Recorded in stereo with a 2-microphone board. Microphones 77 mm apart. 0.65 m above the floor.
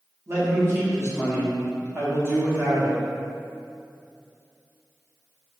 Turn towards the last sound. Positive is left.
turn(degrees=-35)  # may be behind; listen again after turning